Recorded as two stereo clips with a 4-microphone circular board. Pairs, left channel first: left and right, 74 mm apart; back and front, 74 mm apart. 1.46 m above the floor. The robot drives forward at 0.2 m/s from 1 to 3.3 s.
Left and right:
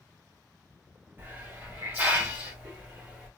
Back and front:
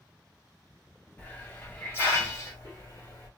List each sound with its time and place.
1.2 s a hiss: 130° right, 0.9 m; by 3.3 s 150° right, 1.2 m